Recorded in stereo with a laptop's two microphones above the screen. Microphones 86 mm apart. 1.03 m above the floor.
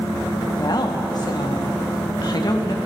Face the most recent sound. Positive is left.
turn(degrees=45)  # may be behind; listen again after turning